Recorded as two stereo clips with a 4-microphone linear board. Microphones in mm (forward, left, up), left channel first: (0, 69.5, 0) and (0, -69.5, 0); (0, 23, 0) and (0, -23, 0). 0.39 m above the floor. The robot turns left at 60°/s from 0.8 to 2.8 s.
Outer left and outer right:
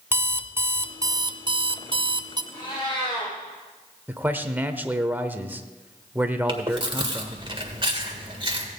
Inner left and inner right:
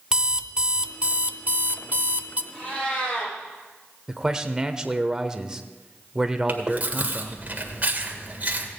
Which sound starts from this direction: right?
Chewing, at 6.5 s.